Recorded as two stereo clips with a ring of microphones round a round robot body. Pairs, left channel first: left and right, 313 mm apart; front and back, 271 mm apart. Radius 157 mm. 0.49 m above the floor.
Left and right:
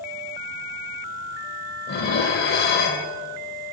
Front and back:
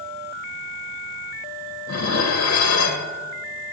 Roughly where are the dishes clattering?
Ahead left.